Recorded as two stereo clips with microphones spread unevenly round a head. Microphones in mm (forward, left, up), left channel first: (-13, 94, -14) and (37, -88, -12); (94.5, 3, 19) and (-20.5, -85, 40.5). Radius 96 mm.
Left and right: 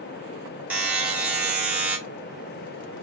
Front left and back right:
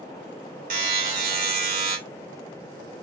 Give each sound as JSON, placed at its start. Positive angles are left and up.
{"t": 0.7, "sound": "a buzzer", "azimuth_deg": -155, "distance_m": 1.6}